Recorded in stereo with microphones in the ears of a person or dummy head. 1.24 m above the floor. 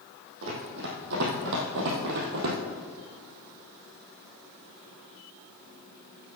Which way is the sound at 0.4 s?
55° right (ahead or behind).